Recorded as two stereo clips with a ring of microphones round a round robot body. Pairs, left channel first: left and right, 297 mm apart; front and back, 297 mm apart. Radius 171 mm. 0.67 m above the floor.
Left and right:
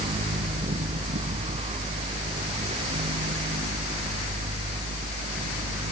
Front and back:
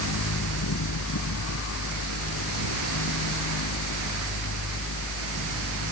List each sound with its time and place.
Only background noise.